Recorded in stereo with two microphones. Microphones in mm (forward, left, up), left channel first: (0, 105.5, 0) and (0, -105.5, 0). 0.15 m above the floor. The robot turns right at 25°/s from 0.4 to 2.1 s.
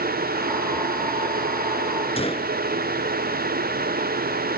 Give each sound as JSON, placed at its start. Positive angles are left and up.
{"t": 2.2, "sound": "a gunshot", "side_deg": 30}